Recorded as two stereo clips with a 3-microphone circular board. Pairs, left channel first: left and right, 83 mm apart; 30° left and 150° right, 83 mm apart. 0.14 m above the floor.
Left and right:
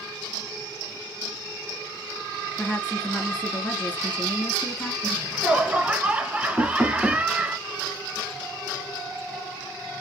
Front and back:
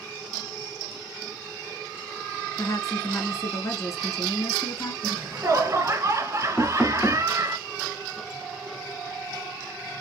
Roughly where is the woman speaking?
Ahead left.